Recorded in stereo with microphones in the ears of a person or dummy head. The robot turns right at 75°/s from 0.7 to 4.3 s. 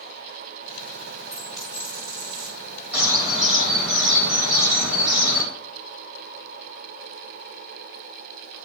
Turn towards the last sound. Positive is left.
turn(degrees=-70)